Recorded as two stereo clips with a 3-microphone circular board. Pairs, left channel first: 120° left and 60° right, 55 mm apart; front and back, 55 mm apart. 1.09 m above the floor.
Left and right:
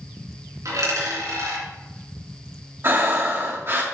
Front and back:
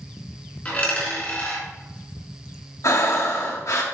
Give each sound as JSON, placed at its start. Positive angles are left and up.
{"t": 0.7, "sound": "a dropped coin", "azimuth_deg": -60, "distance_m": 3.5}
{"t": 2.8, "sound": "breathing", "azimuth_deg": -15, "distance_m": 1.3}